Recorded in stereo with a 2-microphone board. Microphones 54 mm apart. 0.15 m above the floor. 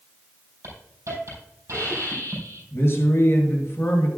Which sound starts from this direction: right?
A hiss, at 0.6 s.